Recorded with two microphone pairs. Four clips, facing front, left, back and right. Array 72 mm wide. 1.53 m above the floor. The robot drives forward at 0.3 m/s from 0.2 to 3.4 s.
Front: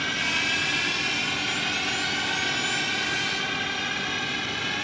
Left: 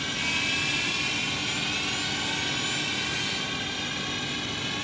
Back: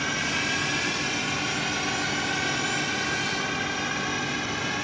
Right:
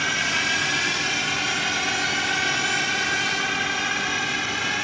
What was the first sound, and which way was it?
A drone, 105° right.